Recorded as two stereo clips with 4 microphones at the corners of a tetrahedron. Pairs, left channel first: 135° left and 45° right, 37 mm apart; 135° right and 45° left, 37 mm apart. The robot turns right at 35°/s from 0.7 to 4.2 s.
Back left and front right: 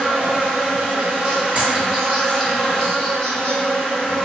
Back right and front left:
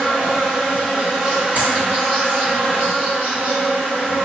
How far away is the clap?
About 1.8 m.